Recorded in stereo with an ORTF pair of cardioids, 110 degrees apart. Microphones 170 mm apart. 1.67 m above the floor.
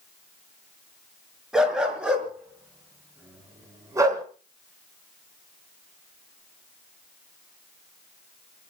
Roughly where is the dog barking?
Ahead.